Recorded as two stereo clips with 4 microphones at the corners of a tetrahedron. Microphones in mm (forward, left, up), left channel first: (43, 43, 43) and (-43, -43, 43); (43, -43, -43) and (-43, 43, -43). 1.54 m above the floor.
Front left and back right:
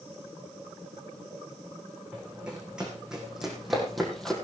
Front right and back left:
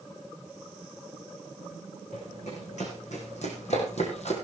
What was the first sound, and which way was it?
Running footsteps, 55° right.